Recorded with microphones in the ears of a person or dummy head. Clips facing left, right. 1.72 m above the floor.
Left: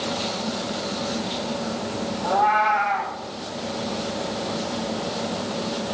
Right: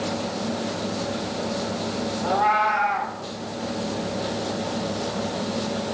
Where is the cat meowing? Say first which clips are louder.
Left 2 dB; 30° right (ahead or behind), 1.4 m.